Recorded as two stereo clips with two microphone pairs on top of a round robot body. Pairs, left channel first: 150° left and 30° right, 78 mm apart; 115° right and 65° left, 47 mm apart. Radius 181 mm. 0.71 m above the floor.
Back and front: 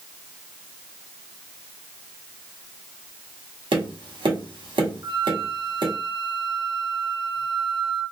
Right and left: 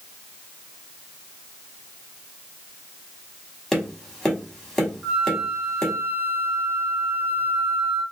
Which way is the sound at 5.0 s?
10° left.